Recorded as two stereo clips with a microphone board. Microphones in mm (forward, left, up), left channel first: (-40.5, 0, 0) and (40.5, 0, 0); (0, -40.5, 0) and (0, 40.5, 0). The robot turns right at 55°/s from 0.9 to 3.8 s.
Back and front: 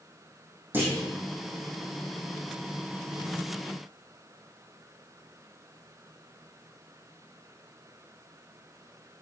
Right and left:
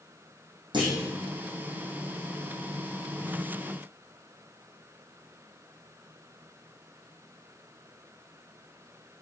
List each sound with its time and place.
0.7 s a clunk: 65° left, 5 m; by 1.0 s 70° left, 5 m